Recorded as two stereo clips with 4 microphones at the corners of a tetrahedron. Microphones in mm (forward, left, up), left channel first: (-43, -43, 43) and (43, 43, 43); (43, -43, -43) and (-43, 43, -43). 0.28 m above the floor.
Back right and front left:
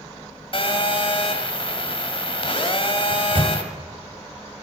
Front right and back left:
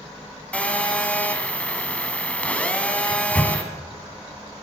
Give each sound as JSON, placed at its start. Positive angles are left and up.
{"t": 0.5, "sound": "a phone buzzing", "azimuth_deg": -120, "distance_m": 1.7}
{"t": 3.1, "sound": "a microwave", "azimuth_deg": 30, "distance_m": 1.4}